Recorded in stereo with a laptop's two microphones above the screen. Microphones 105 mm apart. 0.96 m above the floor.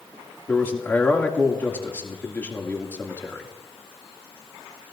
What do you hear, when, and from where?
0.5 s a man speaking: 20° left (ahead or behind), 2 m